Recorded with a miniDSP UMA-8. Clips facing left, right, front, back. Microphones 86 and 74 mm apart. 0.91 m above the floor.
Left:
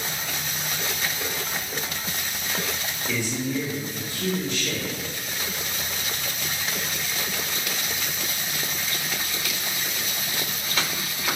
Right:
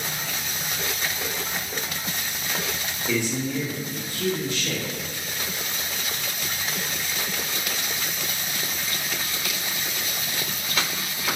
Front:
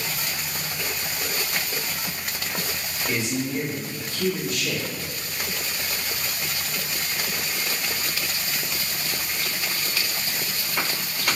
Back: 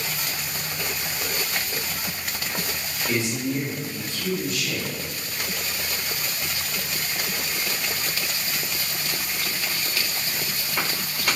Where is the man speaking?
75° right, 2.0 m; by 4.9 s 20° right, 1.8 m.